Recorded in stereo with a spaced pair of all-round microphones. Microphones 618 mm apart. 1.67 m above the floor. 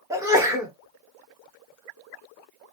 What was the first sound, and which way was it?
A sneeze, 5° right (ahead or behind).